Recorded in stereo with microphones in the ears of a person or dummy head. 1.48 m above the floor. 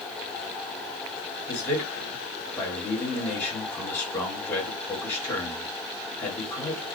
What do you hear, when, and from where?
1.5 s a man speaking: 15° left (ahead or behind), 1.1 m